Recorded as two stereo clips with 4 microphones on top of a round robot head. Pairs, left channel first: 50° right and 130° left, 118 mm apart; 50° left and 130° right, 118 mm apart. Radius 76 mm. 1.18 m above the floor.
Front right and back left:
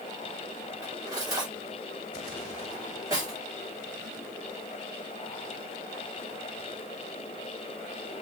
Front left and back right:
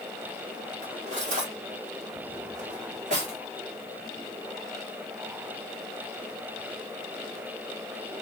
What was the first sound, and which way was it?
Cutlery clinking, 165° right.